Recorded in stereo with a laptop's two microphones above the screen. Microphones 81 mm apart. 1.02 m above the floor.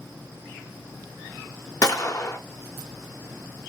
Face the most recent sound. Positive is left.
turn(degrees=45)  # may be behind; listen again after turning